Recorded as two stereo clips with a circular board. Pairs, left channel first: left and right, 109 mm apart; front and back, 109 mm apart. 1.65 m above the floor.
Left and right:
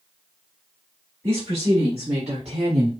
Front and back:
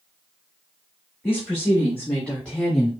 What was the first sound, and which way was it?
A woman speaking, 75° right.